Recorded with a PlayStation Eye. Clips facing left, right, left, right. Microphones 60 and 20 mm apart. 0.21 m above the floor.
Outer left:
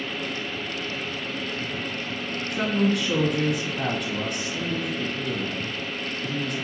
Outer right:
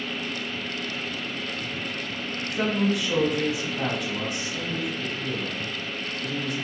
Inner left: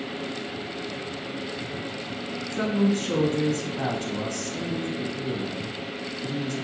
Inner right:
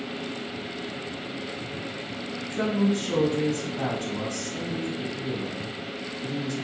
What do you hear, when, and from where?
2.5 s a woman speaking: centre (ahead or behind), 1.6 m